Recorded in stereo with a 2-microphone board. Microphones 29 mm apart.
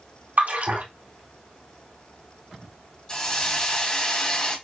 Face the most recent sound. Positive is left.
turn(degrees=30)  # may be behind; listen again after turning